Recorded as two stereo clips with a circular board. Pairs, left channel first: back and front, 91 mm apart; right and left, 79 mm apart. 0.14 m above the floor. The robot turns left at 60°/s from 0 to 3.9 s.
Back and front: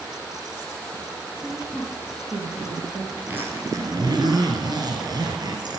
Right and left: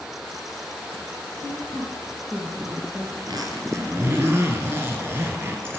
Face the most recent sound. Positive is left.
turn(degrees=25)